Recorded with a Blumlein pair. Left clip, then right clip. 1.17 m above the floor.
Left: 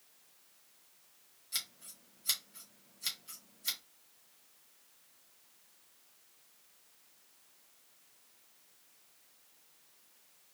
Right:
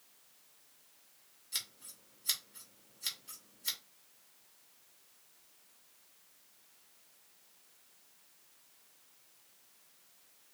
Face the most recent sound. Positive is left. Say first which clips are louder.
# left 1 dB
turn(degrees=5)